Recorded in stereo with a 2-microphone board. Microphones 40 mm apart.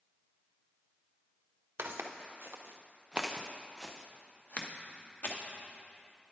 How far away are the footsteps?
About 1.0 m.